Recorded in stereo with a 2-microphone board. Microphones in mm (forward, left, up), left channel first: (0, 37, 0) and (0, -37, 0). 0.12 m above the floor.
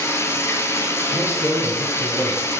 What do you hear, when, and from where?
0.0 s running water: 40° left (ahead or behind), 0.8 m
1.1 s a man speaking: 45° left (ahead or behind), 2.5 m